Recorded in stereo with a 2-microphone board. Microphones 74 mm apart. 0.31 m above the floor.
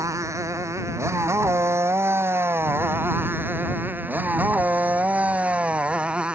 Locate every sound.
0.0 s a motorcycle: 45° right (ahead or behind); by 6.3 s 15° right (ahead or behind)